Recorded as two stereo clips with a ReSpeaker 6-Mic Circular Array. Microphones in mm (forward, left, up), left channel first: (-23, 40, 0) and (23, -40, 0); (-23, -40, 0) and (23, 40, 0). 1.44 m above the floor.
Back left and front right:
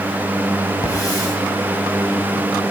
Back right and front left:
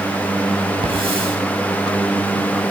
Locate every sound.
0.8 s a hiss: 70° left, 5.5 m